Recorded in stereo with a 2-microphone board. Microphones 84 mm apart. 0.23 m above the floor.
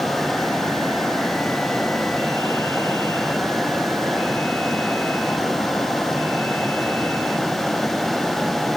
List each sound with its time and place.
Only background noise.